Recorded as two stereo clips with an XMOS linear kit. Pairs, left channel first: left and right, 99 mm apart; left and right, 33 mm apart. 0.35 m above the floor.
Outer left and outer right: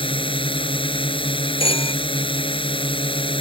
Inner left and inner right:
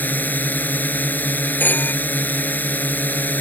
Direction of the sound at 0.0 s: 65° left (ahead or behind).